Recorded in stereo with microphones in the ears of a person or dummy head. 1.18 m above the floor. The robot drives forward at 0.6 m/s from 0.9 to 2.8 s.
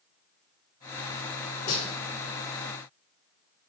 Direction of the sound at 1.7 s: 55° left (ahead or behind).